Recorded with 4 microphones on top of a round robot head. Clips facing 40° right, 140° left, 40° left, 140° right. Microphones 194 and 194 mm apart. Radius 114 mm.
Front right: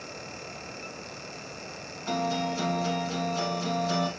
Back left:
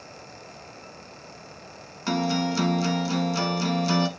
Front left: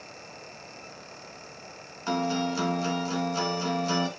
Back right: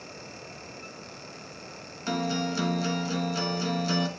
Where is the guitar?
150° left, 1.1 m.